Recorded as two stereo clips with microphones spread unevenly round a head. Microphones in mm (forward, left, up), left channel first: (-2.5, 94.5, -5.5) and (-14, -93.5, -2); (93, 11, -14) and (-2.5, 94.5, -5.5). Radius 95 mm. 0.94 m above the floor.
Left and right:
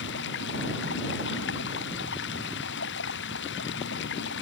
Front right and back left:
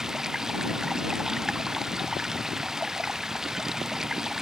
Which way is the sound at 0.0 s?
55° left.